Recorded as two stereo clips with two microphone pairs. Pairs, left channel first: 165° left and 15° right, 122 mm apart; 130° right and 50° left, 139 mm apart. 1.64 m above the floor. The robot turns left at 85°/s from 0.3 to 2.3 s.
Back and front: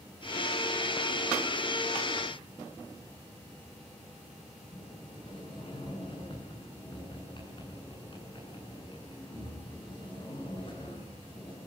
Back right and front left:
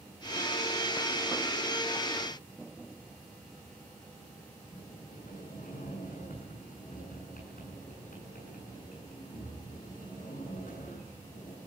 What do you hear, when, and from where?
4.7 s a sliding door: 145° right, 9.5 m